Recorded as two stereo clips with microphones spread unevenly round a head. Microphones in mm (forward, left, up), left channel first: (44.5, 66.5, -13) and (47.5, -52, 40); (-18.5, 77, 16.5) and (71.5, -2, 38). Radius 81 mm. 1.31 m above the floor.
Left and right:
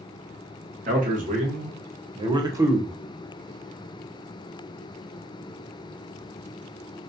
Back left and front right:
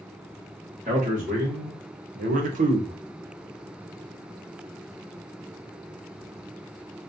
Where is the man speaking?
90° right, 1.1 m; by 3.0 s 5° right, 0.8 m.